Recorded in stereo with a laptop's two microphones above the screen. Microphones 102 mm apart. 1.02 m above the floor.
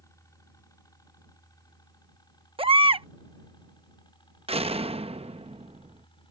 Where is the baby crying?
65° right (ahead or behind).